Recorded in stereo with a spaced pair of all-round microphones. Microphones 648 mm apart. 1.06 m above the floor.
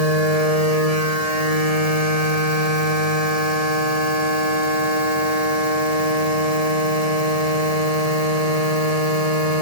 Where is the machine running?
65° left (ahead or behind).